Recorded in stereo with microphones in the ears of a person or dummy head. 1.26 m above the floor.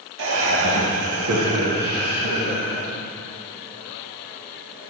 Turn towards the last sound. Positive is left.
turn(degrees=-25)  # may be behind; listen again after turning